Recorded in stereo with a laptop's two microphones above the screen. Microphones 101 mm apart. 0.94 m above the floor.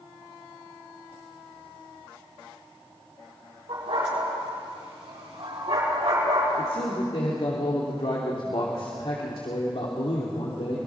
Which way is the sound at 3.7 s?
85° right.